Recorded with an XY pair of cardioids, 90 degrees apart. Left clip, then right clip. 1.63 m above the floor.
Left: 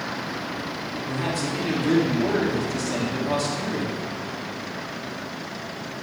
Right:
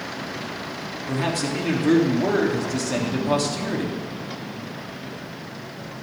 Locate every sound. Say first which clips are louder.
1.1 s a man speaking: right 3 dB; 30° right, 3.5 m